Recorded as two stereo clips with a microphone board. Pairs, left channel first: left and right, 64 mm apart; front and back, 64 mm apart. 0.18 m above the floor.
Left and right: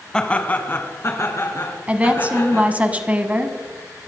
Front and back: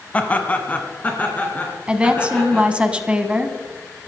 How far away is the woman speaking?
About 1.5 m.